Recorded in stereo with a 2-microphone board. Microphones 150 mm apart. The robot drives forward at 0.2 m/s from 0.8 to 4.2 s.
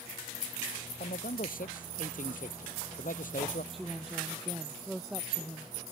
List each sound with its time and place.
1.0 s a man speaking: 65° left (ahead or behind)
3.7 s a woman speaking: centre (ahead or behind)